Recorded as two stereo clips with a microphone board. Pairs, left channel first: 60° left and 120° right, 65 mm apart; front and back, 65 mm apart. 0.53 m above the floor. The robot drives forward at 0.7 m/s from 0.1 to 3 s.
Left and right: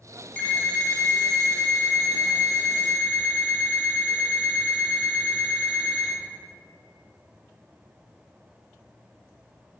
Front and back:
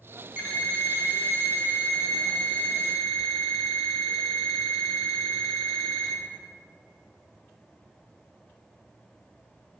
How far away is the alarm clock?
About 1.3 m.